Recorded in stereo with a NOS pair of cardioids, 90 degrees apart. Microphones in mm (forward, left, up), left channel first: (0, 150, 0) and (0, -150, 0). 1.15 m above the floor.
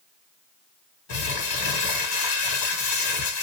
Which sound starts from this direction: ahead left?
Crumpling, at 1.1 s.